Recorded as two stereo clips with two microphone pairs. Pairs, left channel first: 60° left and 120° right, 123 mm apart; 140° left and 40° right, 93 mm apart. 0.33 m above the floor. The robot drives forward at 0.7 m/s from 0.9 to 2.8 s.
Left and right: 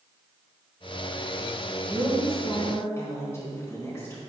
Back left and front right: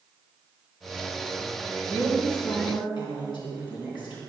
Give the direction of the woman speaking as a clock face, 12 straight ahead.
8 o'clock.